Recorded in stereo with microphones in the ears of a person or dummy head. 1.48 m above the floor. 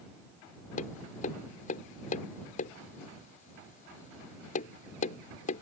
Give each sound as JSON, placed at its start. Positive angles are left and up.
{"t": 0.8, "sound": "tapping", "side_deg": 45}